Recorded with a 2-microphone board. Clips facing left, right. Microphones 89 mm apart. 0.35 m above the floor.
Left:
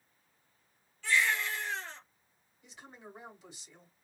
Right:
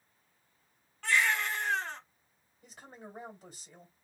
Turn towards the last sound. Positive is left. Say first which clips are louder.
# right 2 dB
turn(degrees=-45)  # may be behind; listen again after turning